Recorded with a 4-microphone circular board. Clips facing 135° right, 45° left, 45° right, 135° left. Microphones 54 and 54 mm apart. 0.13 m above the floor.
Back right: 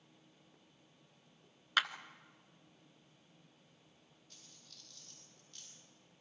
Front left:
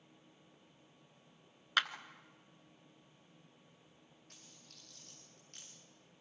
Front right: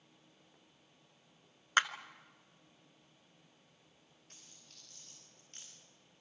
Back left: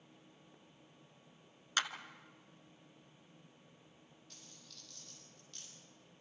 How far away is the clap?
About 1.0 m.